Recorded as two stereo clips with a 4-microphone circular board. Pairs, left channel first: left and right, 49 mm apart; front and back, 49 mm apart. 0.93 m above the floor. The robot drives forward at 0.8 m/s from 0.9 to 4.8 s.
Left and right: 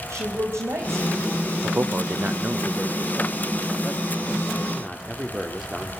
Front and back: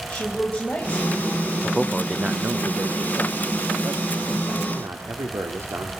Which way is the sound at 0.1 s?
65° right.